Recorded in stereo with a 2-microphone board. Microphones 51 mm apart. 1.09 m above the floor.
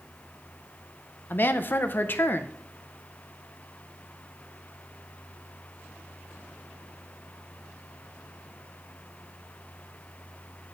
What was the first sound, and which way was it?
A woman speaking, 40° left (ahead or behind).